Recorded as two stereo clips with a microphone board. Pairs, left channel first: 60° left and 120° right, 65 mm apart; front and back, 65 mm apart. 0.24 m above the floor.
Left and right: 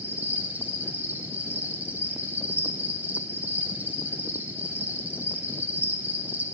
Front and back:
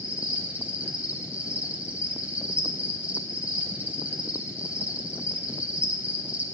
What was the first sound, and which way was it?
An insect, 140° right.